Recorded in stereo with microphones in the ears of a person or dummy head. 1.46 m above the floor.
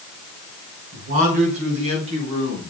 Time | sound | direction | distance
0.9 | a man speaking | 40° right (ahead or behind) | 5 m